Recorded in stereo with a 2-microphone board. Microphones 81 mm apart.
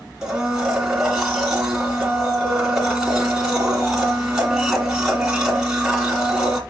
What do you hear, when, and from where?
0.2 s a blender: 5° right (ahead or behind), 2 m